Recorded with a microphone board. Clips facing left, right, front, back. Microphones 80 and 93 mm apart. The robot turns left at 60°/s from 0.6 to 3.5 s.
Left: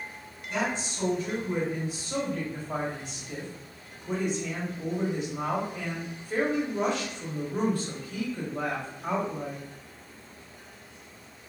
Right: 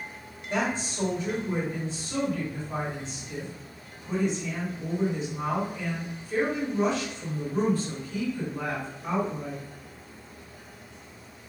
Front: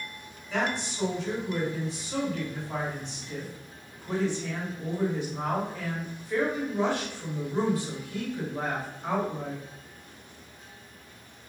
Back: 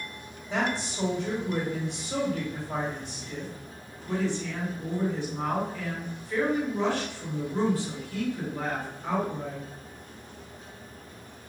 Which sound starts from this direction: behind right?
A woman speaking, at 0.5 s.